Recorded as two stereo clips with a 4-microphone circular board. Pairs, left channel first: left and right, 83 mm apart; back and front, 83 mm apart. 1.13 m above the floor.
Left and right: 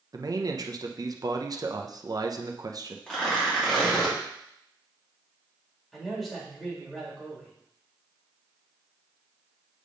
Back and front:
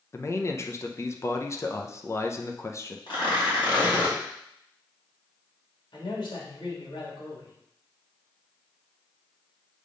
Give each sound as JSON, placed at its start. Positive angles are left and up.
{"t": 0.1, "sound": "a man speaking", "azimuth_deg": -125, "distance_m": 0.7}
{"t": 3.1, "sound": "tearing paper", "azimuth_deg": 175, "distance_m": 2.5}
{"t": 5.9, "sound": "a man speaking", "azimuth_deg": 175, "distance_m": 3.0}